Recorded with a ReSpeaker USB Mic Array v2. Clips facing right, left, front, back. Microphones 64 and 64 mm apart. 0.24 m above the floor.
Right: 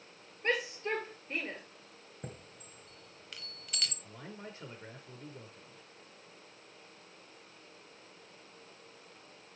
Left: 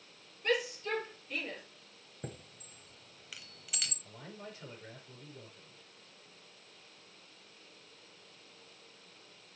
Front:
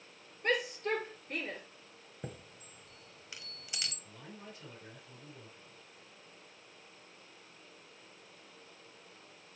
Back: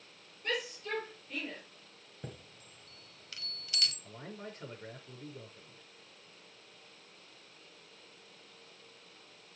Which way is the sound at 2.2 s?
10° left.